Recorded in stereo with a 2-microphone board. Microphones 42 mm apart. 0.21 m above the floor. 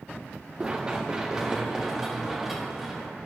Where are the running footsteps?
25° right (ahead or behind), 1.0 m; by 3.1 s 5° right (ahead or behind), 2.5 m.